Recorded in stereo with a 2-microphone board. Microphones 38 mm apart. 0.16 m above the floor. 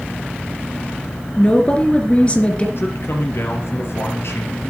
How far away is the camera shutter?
I don't hear a camera shutter.